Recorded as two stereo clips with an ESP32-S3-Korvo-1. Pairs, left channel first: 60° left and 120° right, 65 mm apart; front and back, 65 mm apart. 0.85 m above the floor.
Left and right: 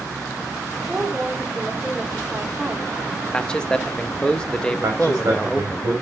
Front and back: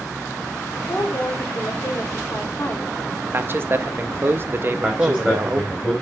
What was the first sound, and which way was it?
A woman speaking, 45° right.